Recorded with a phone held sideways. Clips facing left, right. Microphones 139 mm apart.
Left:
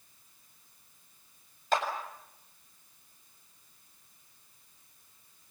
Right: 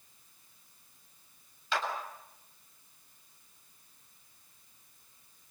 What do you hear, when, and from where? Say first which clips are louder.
1.7 s a clap: left 5 dB; 45° left (ahead or behind), 7 m